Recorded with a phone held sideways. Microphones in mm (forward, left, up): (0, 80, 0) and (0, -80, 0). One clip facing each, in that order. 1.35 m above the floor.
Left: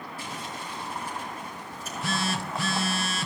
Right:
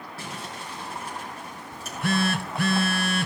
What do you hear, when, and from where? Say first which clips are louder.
0.2 s crumpling: right 1 dB; 80° right, 4.5 m
1.7 s a phone buzzing: right 6 dB; 60° right (ahead or behind), 0.6 m